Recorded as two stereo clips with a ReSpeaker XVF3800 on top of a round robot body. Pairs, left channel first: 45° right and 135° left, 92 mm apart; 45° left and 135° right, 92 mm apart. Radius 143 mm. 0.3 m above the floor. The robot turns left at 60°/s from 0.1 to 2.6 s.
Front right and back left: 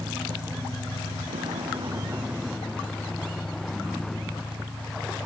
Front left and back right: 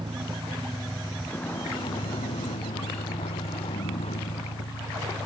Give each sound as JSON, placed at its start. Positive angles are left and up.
{"t": 0.0, "sound": "a vehicle", "azimuth_deg": -170}